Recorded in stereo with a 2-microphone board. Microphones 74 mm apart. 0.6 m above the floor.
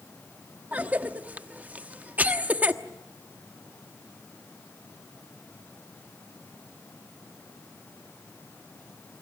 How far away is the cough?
About 1.1 m.